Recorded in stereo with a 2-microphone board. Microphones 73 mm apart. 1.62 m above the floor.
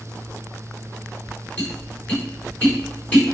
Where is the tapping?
25° left (ahead or behind), 4 m.